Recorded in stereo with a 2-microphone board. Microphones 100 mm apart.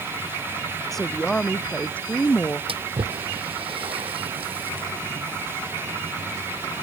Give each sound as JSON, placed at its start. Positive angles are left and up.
{"t": 0.9, "sound": "a woman speaking", "side_deg": 5}
{"t": 2.7, "sound": "a splash", "side_deg": -70}